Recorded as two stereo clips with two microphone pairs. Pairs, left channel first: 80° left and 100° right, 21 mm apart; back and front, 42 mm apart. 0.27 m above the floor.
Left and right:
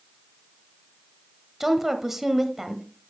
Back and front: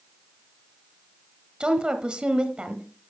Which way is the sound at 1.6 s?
30° right.